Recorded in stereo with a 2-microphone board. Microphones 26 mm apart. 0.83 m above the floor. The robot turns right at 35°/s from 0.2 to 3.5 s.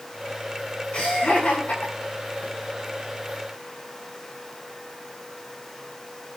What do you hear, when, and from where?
0.9 s laughter: 45° left (ahead or behind), 8.5 m; by 2.5 s 80° left, 8.5 m